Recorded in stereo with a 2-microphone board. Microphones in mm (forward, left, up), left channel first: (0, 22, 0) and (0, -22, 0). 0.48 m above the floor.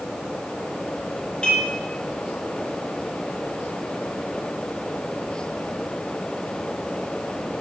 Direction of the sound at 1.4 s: 20° left (ahead or behind).